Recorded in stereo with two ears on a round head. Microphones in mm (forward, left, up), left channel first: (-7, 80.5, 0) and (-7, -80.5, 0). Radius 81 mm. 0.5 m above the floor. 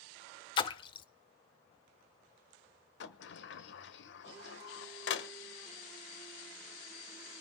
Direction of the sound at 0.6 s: 25° left (ahead or behind).